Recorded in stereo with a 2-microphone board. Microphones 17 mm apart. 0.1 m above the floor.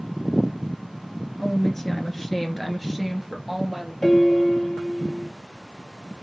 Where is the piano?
20° left (ahead or behind), 0.9 m.